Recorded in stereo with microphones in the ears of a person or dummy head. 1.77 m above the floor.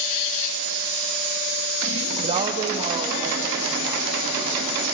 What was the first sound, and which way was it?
A woman speaking, 30° right (ahead or behind).